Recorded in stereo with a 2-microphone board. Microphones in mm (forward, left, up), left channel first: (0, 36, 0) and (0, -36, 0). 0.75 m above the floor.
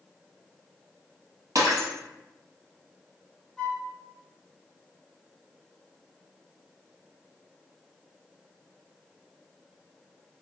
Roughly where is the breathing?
I don't hear breathing.